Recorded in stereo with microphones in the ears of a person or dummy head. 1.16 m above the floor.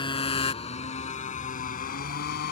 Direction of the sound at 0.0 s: 30° left (ahead or behind).